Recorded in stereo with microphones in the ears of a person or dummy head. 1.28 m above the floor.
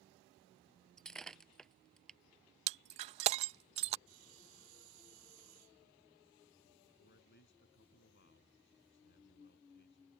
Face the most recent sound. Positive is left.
turn(degrees=55)  # may be behind; listen again after turning